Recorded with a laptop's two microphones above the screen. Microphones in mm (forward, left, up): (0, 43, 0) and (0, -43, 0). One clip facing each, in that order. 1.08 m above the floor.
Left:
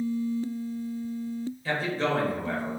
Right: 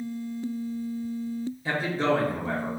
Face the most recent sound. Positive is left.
turn(degrees=-15)  # may be behind; listen again after turning